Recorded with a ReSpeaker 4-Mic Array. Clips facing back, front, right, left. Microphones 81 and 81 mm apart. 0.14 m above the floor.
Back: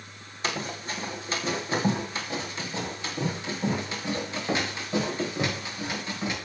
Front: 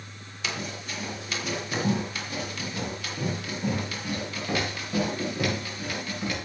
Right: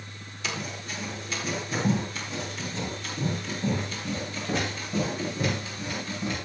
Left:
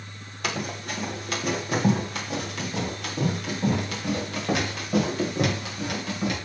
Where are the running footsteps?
125° left, 5 m; by 6.3 s 110° left, 9.5 m.